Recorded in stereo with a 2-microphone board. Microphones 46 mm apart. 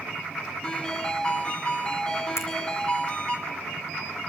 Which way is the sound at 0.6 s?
20° left (ahead or behind).